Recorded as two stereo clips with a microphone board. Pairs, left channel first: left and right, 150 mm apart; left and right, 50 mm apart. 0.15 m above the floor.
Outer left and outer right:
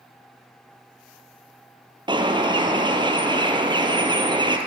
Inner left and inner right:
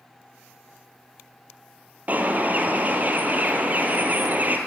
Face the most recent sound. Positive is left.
turn(degrees=-30)  # may be behind; listen again after turning